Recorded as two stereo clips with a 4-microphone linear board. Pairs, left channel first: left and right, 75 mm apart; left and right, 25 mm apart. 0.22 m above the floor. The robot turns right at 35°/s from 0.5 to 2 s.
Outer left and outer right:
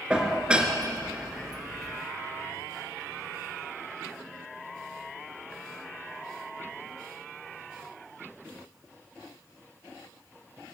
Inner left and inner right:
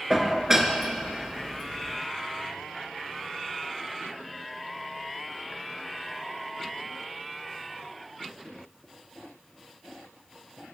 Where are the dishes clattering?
15° right (ahead or behind), 2 m; by 0.7 s 20° right (ahead or behind), 2 m.